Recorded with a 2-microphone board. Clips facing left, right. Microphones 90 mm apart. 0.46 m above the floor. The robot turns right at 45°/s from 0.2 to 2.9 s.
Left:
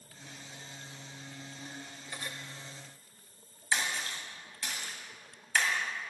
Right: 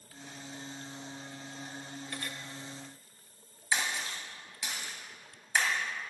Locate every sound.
2.1 s cutlery clinking: 10° left (ahead or behind), 1.1 m; by 2.3 s 20° left (ahead or behind), 1.1 m
3.7 s a splash: 15° right (ahead or behind), 2.5 m